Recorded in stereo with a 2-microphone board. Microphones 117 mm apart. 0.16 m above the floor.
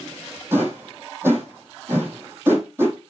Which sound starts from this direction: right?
A whoosh, at 0.5 s.